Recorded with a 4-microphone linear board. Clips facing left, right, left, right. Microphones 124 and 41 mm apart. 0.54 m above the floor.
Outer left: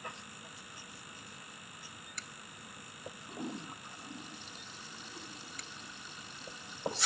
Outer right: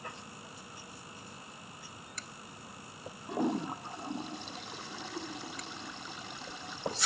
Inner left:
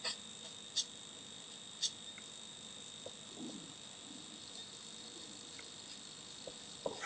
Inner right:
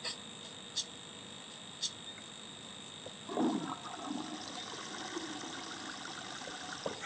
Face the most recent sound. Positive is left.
turn(degrees=-75)  # may be behind; listen again after turning